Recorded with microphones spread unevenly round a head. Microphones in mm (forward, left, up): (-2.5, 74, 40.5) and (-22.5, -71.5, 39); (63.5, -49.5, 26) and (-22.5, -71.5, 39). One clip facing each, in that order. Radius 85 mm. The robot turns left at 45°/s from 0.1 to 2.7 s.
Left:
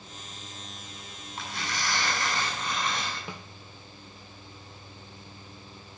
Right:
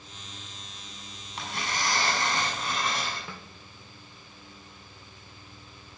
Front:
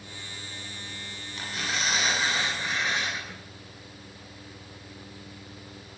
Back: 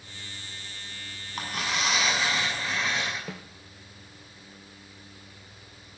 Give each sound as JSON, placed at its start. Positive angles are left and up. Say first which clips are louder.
{"t": 1.4, "sound": "tearing paper", "louder": "right 2 dB, back 2 dB", "azimuth_deg": -125, "distance_m": 8.0}
{"t": 3.3, "sound": "a snare drum", "louder": "left 2 dB, back 5 dB", "azimuth_deg": 155, "distance_m": 1.4}